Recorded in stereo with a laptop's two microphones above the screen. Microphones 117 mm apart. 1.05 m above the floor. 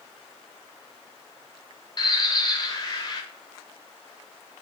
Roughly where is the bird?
Left.